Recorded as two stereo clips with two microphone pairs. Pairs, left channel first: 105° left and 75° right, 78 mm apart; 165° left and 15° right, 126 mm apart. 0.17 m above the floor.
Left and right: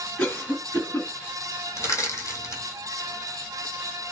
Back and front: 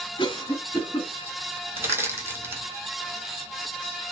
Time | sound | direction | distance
0.2 | a cough | 155° left | 1.7 m
1.8 | crushing | 55° left | 1.4 m